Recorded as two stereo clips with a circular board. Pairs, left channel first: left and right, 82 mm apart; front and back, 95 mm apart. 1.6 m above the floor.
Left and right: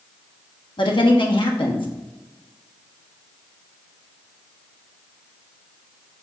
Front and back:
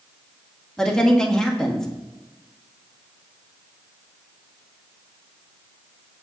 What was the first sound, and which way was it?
A woman speaking, 85° left.